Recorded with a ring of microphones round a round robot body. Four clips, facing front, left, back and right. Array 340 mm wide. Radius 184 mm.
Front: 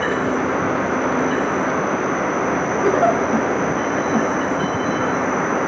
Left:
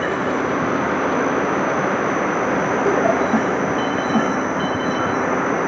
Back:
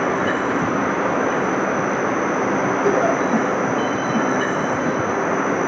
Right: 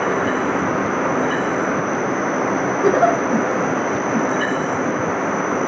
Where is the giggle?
60° right, 3.5 m.